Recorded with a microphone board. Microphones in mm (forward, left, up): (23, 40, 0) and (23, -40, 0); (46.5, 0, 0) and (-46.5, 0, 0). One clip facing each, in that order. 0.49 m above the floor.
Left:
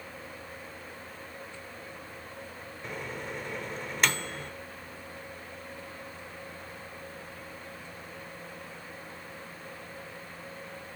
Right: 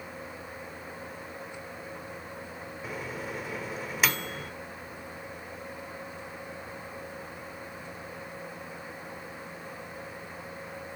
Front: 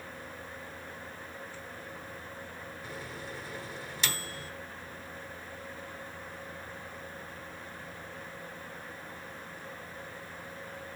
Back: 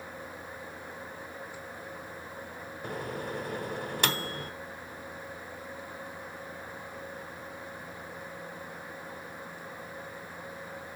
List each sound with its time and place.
2.8 s a microwave: 175° right, 0.9 m